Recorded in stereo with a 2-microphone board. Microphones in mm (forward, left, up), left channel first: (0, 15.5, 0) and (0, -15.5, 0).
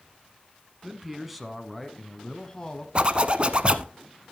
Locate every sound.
0.8 s a man speaking: 10° right (ahead or behind), 1.5 m; by 2.9 s 25° left (ahead or behind), 1.3 m
3.0 s a zipper: 35° right (ahead or behind), 0.9 m